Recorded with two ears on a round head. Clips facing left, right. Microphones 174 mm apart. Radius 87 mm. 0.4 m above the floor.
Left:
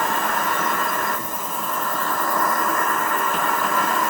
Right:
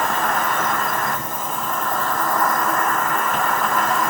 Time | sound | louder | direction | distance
0.0 | an insect | right 2 dB | 40° right (ahead or behind) | 2 m